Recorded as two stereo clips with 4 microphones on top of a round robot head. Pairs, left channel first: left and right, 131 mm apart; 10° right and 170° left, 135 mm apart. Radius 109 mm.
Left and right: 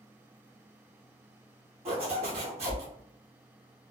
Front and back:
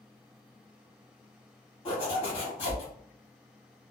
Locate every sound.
1.9 s a zipper: 55° right, 1.4 m